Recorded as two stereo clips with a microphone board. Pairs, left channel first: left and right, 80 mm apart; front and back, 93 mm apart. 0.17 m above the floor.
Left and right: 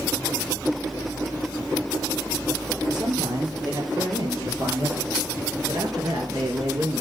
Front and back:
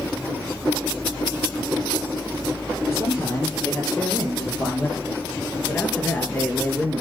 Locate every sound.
2.9 s a man speaking: 60° right, 5.5 m; by 7.0 s 75° right, 3 m